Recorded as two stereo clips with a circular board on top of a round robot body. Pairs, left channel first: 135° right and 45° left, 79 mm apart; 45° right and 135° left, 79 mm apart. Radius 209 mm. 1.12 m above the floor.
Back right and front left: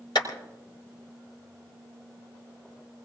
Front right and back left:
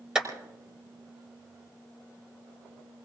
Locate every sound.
0.1 s a clap: 145° right, 5 m